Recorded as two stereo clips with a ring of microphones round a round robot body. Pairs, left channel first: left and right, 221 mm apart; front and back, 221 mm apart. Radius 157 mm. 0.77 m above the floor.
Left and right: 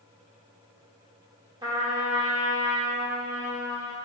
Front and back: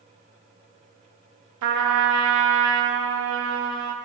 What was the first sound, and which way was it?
A trumpet, 165° right.